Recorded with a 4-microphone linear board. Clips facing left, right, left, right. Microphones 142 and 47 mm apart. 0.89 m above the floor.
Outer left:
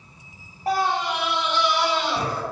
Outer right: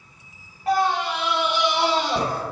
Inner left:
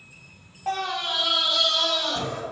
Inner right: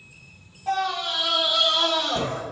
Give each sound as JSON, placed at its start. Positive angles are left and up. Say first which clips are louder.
{"t": 0.7, "sound": "a scream", "louder": "outer right 2 dB, inner right 2 dB", "side_deg": 35, "distance_m": 1.1}